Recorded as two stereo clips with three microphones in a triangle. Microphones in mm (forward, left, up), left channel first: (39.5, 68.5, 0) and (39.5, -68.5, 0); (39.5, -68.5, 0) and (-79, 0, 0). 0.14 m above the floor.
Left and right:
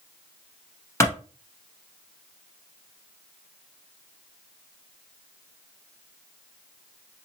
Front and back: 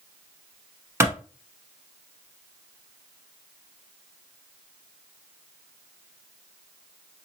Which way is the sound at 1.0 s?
115° left.